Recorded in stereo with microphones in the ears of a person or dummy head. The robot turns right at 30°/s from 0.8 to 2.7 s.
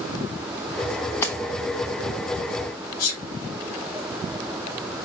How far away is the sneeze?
About 4.5 m.